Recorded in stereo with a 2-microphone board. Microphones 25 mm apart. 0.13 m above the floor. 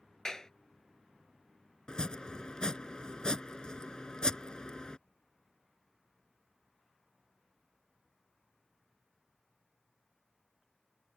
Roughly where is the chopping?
Left.